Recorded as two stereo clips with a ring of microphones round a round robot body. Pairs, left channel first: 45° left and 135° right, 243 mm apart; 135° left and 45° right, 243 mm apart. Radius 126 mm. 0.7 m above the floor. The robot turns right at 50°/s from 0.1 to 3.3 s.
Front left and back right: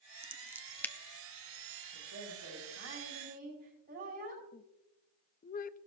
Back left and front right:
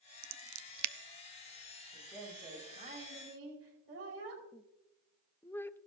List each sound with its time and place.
0.2 s scissors: 70° right, 0.6 m; by 0.9 s 35° right, 0.6 m
1.9 s a woman speaking: 150° right, 5 m; by 4.4 s 85° right, 5 m
4.5 s a woman speaking: 60° left, 0.6 m